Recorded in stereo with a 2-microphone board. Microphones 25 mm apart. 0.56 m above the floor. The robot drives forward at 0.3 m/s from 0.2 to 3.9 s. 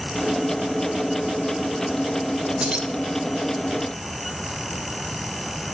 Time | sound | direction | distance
2.6 | keys jangling | 30° right (ahead or behind) | 0.7 m